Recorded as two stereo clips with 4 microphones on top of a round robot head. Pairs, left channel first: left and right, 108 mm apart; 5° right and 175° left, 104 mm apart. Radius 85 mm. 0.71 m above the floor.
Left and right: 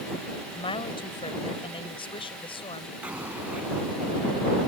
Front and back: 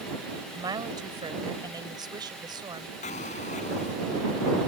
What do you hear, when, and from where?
0.5 s a woman speaking: 125° left
3.0 s an explosion: 10° right